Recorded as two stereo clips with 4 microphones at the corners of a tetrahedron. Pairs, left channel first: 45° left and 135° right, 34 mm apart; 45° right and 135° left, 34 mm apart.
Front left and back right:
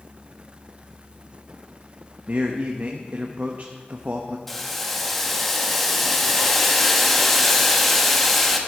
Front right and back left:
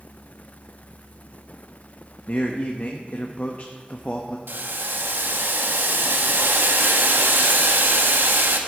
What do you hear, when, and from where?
2.3 s a man speaking: 90° right, 0.8 m
4.5 s boiling: 130° left, 1.0 m